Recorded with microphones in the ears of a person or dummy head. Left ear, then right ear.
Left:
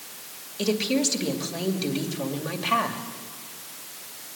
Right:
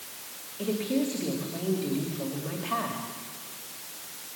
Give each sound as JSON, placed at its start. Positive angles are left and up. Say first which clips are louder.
{"t": 0.6, "sound": "a woman speaking", "louder": "left 5 dB", "side_deg": 80, "distance_m": 2.5}